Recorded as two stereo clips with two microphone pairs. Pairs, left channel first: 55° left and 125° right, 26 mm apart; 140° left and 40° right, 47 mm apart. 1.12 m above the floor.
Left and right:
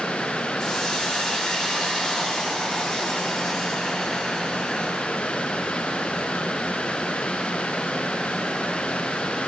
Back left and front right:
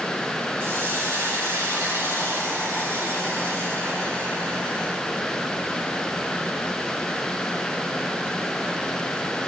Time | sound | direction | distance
0.6 | a hiss | 10° right | 3 m